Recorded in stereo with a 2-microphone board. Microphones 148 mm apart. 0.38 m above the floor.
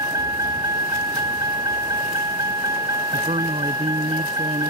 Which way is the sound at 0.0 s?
25° right (ahead or behind).